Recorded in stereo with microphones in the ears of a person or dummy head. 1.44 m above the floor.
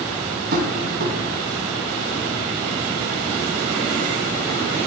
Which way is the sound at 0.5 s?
55° right (ahead or behind).